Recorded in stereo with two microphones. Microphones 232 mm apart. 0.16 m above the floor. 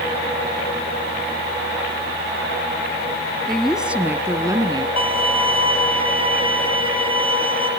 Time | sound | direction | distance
3.5 | a woman speaking | 5° left (ahead or behind) | 1.2 m
5.0 | a violin | 25° right (ahead or behind) | 4 m